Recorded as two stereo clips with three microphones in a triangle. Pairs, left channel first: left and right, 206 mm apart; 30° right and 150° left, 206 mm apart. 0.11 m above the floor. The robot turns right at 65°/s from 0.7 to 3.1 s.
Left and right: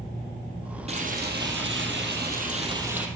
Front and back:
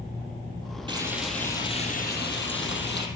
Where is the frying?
145° right, 3 m; by 3.1 s 5° right, 3 m.